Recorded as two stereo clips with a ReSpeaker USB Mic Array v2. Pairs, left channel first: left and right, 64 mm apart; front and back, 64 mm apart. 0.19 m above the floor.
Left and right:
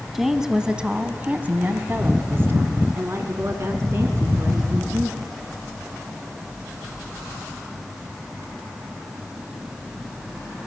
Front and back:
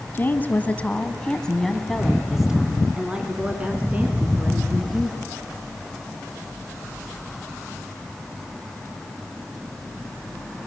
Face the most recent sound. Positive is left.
turn(degrees=-125)